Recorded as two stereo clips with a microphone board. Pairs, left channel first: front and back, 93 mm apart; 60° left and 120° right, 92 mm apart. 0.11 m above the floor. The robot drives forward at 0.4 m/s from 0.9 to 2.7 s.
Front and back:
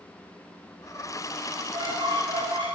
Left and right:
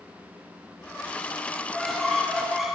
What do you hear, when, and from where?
1.5 s a squeak: 150° left, 6 m